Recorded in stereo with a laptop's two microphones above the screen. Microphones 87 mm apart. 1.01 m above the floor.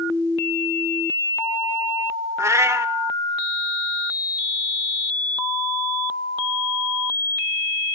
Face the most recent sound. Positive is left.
turn(degrees=-30)  # may be behind; listen again after turning